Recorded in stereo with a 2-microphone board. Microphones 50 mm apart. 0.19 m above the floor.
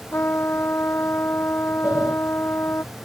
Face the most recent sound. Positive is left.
turn(degrees=-35)  # may be behind; listen again after turning